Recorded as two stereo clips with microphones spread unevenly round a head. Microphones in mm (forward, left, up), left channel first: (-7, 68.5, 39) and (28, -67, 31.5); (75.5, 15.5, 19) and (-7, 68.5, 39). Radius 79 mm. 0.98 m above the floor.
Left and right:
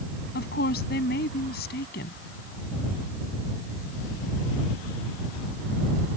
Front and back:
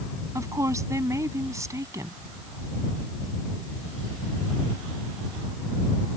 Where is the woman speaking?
90° left.